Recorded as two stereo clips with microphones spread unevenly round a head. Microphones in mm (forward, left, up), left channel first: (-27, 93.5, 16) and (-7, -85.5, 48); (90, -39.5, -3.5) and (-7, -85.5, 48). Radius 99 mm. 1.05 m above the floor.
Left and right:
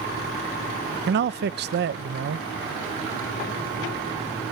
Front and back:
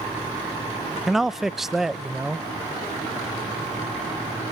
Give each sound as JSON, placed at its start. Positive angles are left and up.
{"t": 1.1, "sound": "a man speaking", "azimuth_deg": -50, "distance_m": 0.8}